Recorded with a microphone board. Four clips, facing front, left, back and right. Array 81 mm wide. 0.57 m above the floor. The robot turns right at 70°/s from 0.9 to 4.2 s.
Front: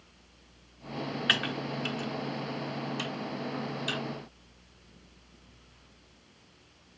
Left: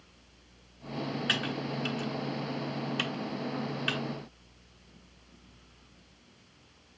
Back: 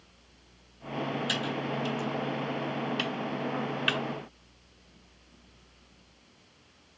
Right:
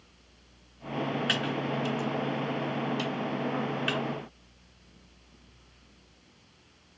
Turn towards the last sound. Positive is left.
turn(degrees=-160)